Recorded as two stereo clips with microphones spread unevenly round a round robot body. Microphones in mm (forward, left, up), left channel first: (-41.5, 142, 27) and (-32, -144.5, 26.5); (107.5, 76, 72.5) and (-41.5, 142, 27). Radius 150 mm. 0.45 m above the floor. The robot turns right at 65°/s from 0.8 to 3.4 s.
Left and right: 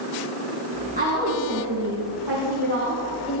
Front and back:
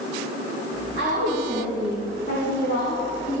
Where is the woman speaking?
155° right, 4 m; by 3.4 s 5° left, 4 m.